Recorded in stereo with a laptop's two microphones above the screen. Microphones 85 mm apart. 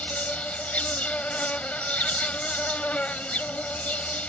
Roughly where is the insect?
Centre.